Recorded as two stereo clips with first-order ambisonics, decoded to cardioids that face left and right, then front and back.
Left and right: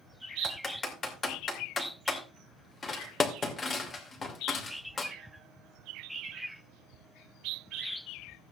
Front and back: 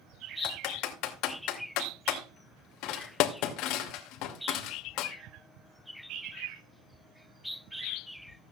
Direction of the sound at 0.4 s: 20° left.